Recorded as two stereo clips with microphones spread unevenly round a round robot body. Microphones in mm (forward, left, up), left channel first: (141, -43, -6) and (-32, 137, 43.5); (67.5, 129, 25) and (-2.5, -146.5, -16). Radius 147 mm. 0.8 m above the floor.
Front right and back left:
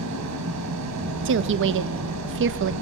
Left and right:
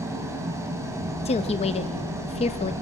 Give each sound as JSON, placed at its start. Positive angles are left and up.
{"t": 0.0, "sound": "an engine running", "azimuth_deg": 175, "distance_m": 3.0}
{"t": 1.2, "sound": "a woman speaking", "azimuth_deg": 145, "distance_m": 0.7}